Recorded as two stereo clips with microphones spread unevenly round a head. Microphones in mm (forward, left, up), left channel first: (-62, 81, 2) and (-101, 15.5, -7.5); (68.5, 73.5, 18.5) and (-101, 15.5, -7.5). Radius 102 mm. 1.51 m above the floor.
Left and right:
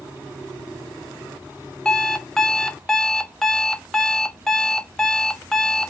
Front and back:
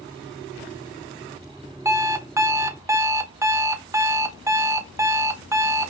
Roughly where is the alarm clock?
Behind left.